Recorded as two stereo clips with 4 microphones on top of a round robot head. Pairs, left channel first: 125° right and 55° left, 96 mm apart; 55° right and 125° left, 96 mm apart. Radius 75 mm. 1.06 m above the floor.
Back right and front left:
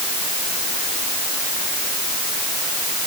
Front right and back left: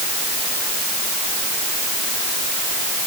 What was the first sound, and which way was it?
Only background noise.